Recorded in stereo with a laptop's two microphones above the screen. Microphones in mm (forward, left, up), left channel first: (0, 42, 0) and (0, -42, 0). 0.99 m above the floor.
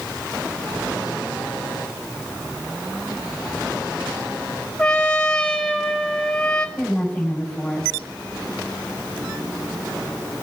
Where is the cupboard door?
I don't hear a cupboard door.